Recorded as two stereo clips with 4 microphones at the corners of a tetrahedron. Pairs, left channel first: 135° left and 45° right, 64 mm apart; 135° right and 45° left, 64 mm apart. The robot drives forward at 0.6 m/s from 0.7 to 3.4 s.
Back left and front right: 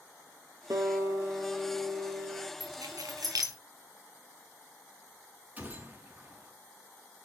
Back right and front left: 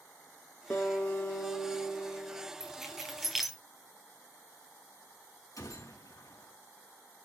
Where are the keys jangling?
40° right, 4.5 m; by 3.6 s 45° right, 4 m.